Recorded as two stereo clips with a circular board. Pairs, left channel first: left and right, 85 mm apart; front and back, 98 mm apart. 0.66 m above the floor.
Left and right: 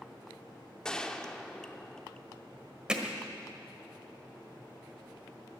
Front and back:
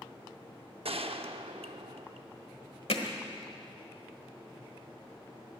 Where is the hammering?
10° right, 1.4 m.